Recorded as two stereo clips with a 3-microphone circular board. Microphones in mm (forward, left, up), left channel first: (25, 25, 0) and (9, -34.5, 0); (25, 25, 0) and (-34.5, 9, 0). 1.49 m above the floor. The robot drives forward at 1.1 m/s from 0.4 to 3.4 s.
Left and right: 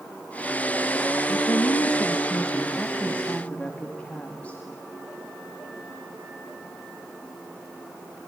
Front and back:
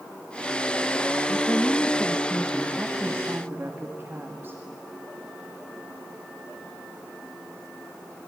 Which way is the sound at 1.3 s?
60° left.